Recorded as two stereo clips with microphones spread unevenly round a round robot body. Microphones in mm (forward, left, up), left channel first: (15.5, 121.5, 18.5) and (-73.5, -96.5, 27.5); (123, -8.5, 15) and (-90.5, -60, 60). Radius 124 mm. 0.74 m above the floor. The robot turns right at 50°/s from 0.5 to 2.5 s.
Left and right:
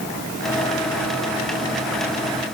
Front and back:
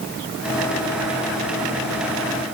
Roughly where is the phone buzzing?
No phone buzzing in this recording.